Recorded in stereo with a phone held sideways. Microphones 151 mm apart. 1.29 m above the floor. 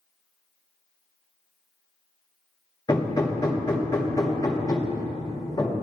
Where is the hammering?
25° left (ahead or behind), 1.6 m.